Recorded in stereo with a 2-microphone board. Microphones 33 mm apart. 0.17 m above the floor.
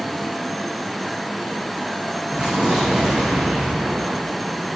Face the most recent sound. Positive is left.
turn(degrees=-20)  # may be behind; listen again after turning